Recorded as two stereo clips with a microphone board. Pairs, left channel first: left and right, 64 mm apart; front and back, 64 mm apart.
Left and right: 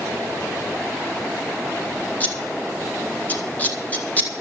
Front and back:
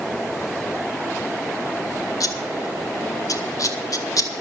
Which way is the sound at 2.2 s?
25° left.